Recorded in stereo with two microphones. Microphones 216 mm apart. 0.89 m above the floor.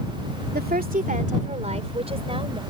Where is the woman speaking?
50° right (ahead or behind); by 2.6 s 25° right (ahead or behind).